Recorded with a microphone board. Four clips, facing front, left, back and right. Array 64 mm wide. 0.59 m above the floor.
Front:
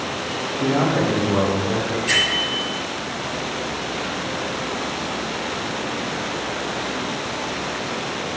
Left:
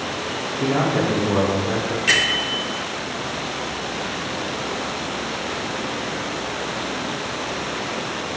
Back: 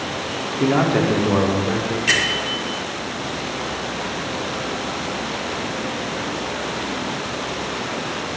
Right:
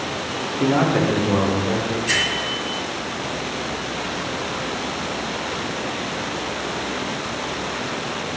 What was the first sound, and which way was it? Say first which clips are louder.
A man speaking: right 2 dB, back 2 dB; 150° right.